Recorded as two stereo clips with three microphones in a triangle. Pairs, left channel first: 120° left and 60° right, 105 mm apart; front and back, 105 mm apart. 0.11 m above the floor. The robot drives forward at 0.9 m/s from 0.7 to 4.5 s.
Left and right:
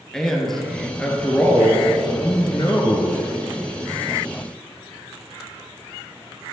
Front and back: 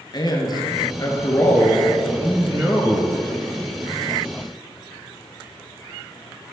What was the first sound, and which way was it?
A man speaking, 35° left.